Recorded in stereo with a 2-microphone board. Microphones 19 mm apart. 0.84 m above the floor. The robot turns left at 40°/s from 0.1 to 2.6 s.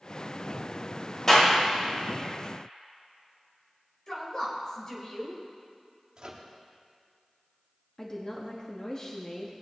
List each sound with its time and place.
1.3 s a clap: 20° left (ahead or behind), 3 m; by 1.5 s 35° left (ahead or behind), 3 m
4.1 s a woman speaking: 40° left (ahead or behind), 3.5 m
6.2 s a microwave: 40° right (ahead or behind), 1.3 m
8.0 s a woman speaking: 35° left (ahead or behind), 1.1 m